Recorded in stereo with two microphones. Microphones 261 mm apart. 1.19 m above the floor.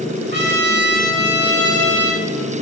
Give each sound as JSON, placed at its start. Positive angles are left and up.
{"t": 0.3, "sound": "a trumpet", "side_deg": -40, "distance_m": 1.7}